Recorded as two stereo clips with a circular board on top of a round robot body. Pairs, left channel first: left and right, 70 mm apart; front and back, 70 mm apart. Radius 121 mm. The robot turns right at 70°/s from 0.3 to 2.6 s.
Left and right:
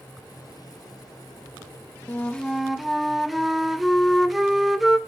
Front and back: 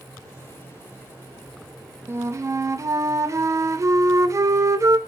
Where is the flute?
145° left, 0.5 m; by 5.0 s straight behind, 0.5 m.